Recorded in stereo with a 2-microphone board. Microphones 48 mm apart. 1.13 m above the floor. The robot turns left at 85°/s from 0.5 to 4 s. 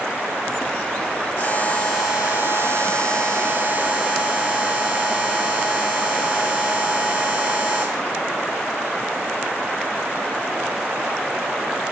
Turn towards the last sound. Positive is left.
turn(degrees=-170)